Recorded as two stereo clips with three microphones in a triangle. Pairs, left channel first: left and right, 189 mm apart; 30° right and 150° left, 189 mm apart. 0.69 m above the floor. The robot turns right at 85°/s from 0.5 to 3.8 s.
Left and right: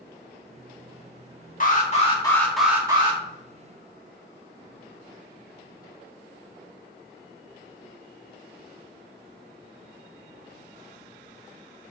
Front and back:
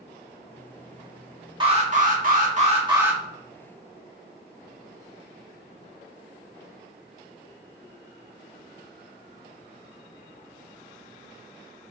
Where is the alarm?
95° left, 1.9 m; by 3.2 s 125° right, 1.9 m.